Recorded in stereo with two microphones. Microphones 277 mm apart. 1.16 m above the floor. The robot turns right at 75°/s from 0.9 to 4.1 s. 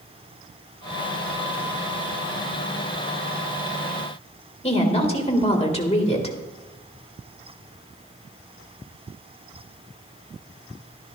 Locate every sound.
4.6 s a woman speaking: 20° left (ahead or behind), 1.6 m